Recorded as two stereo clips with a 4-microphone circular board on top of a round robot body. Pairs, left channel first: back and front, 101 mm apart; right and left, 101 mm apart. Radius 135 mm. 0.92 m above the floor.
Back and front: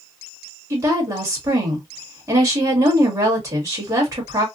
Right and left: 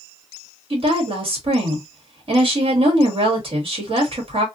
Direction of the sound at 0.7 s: 60° left.